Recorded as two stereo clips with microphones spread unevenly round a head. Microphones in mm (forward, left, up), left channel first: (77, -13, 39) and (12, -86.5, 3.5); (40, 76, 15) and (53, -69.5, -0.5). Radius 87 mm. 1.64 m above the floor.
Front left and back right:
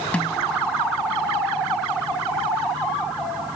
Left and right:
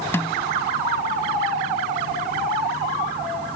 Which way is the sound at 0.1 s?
45° left.